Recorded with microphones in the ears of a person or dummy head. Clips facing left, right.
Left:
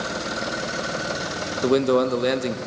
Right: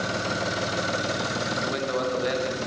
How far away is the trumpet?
No trumpet in this recording.